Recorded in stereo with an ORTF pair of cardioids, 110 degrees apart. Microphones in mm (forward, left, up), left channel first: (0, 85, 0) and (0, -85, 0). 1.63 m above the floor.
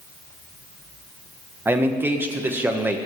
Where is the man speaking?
15° right, 1.3 m.